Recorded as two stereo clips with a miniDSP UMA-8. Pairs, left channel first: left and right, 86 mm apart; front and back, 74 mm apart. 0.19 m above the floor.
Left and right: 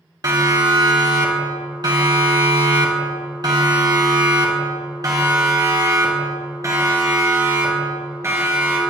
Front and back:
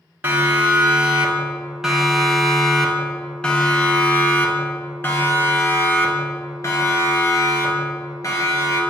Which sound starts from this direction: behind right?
A siren, at 0.2 s.